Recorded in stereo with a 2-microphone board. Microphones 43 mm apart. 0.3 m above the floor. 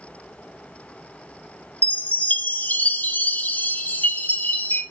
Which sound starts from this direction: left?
A chime, at 1.8 s.